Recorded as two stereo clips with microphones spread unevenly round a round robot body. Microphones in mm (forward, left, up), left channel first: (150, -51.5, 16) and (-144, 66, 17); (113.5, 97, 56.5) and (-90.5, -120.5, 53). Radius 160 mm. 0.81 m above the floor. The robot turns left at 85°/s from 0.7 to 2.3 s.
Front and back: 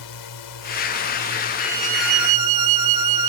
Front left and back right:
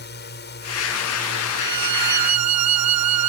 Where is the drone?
10° right; by 3.3 s 145° right.